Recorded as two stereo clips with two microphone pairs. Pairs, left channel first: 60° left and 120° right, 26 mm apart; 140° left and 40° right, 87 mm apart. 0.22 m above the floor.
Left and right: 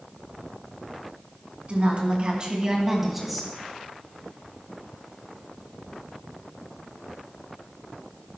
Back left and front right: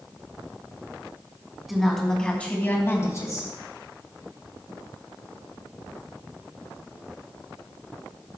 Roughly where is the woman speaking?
Behind right.